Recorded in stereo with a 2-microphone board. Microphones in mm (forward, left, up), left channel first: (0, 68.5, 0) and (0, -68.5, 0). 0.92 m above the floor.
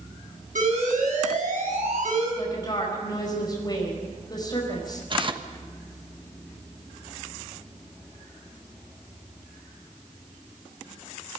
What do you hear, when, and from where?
0.6 s an alarm: 80° right, 7.5 m
2.4 s a woman speaking: 30° left (ahead or behind), 5 m
5.1 s tearing paper: 40° right (ahead or behind), 1.2 m